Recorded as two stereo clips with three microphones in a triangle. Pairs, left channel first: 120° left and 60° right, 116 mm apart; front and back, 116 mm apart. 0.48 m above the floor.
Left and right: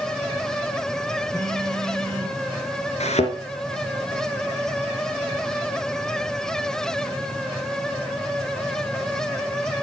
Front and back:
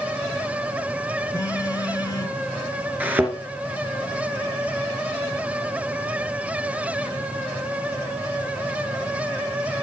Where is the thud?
105° left, 3 m.